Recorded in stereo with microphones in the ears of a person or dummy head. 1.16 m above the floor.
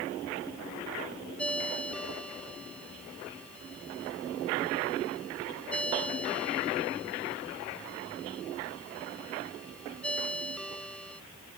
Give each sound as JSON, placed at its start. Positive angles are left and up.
{"t": 1.4, "sound": "a ringtone", "side_deg": 5}